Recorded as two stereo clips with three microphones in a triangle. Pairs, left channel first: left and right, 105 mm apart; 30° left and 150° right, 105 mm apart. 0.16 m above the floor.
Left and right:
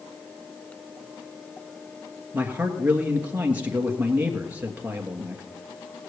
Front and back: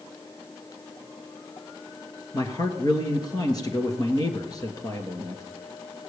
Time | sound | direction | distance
2.3 | a man speaking | 15° right | 2.5 m